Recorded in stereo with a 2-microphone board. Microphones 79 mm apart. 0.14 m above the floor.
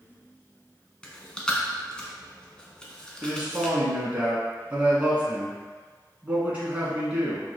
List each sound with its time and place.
1.0 s chewing: 10° left (ahead or behind), 0.8 m
3.2 s a man speaking: 20° right (ahead or behind), 1.1 m